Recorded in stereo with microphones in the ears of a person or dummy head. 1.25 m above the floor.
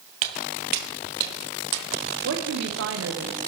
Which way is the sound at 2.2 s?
65° right (ahead or behind).